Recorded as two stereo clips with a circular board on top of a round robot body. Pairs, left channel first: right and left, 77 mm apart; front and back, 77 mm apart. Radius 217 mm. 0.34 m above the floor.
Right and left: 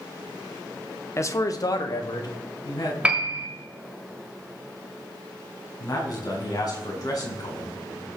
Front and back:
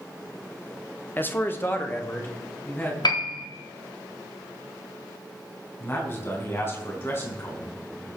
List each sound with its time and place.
1.2 s a man speaking: 55° right, 1.2 m; by 2.9 s 60° right, 3.5 m
3.0 s a piano: 15° left, 1.5 m
5.8 s a man speaking: 55° right, 4.5 m